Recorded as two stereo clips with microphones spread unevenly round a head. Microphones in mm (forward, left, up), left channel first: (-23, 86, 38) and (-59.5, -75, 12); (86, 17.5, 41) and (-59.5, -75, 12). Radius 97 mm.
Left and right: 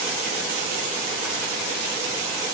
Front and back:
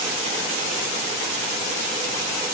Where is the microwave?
I don't hear a microwave.